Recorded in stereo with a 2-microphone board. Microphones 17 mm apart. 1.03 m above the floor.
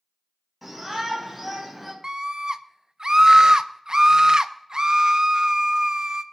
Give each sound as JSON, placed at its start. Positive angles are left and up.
{"t": 0.6, "sound": "a shout", "side_deg": -5, "distance_m": 4.5}
{"t": 2.0, "sound": "a scream", "side_deg": -50, "distance_m": 0.7}